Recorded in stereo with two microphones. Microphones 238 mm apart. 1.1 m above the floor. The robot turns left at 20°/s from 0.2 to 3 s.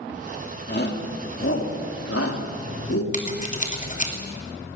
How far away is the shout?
About 3 m.